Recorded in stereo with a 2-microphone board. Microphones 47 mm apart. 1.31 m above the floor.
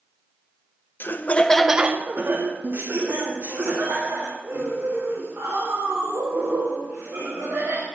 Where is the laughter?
50° left (ahead or behind), 0.7 m; by 7.8 s 85° right, 5.5 m.